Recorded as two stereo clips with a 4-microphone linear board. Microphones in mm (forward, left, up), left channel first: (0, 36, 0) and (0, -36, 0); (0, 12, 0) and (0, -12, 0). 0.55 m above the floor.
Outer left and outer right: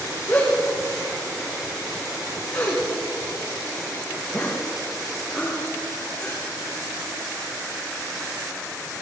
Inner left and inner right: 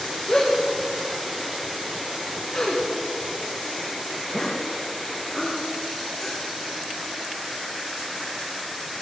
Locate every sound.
0.3 s a gasp: 15° left (ahead or behind), 8 m